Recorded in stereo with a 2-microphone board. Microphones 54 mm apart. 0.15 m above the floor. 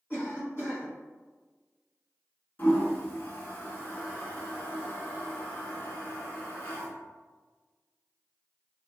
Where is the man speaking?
No man speaking in this recording.